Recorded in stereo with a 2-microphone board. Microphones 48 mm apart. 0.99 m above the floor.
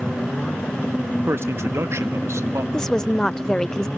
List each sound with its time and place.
1.3 s a man speaking: 55° right (ahead or behind), 1.6 m; by 2.6 s 75° right (ahead or behind), 2 m
2.7 s a woman speaking: 15° left (ahead or behind), 0.5 m